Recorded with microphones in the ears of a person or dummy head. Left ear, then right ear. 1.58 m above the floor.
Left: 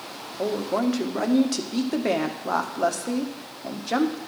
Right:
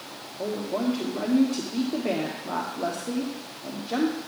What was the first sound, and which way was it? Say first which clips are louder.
A woman speaking: left 4 dB; 75° left (ahead or behind).